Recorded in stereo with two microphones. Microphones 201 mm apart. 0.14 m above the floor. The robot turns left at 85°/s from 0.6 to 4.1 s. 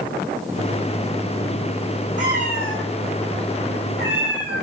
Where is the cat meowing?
90° left, 1.4 m; by 4.6 s 70° right, 1.4 m.